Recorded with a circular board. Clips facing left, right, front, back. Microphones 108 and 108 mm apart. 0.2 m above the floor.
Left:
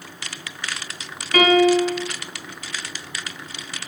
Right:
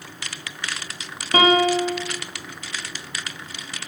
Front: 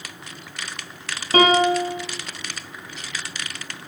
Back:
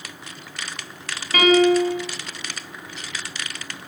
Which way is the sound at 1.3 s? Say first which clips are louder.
Left 2 dB, back 1 dB; 45° right.